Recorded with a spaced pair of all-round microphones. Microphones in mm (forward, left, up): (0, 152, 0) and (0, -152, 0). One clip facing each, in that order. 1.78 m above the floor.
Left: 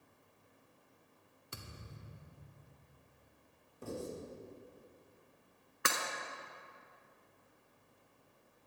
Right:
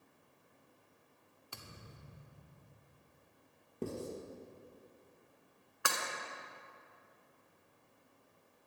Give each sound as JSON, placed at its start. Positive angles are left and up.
{"t": 1.5, "sound": "a thud", "side_deg": 25, "distance_m": 1.8}
{"t": 3.8, "sound": "writing", "side_deg": -75, "distance_m": 5.5}
{"t": 5.8, "sound": "breaking glass", "side_deg": 25, "distance_m": 2.0}